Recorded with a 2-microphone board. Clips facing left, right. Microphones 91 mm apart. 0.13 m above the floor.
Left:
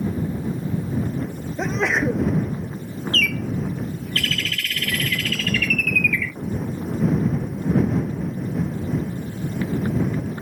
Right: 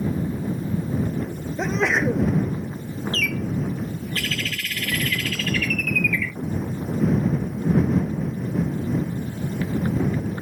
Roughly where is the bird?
Centre.